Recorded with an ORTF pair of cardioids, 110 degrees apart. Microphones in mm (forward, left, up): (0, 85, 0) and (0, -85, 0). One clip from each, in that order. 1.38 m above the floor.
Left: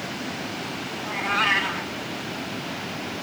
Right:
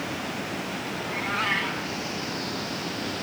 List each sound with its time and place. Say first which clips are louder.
1.0 s a cat meowing: left 5 dB; 35° left, 2.5 m